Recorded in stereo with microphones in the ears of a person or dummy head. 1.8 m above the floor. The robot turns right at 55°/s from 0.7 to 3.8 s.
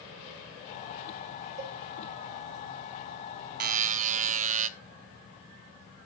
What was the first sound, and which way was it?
A cowbell, 40° right (ahead or behind).